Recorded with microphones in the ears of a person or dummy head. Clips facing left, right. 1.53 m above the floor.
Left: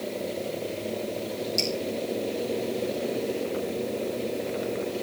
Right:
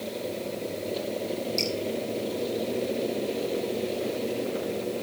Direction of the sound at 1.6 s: 5° left (ahead or behind).